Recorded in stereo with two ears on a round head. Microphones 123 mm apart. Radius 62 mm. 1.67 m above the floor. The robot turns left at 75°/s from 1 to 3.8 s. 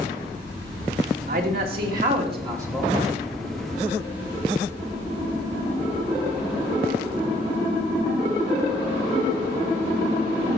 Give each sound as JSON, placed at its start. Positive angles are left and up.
{"t": 1.3, "sound": "a man speaking", "azimuth_deg": -55, "distance_m": 2.5}